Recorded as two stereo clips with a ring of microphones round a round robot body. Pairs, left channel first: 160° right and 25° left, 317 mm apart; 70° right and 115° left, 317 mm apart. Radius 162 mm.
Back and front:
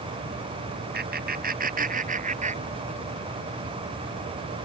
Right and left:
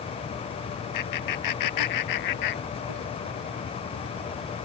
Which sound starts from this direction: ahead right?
Laughter, at 0.9 s.